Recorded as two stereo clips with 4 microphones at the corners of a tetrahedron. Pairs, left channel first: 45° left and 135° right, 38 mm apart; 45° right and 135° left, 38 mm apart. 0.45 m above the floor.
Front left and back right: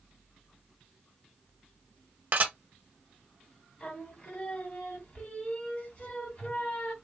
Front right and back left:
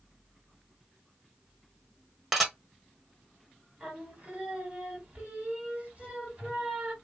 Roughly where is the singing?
Left.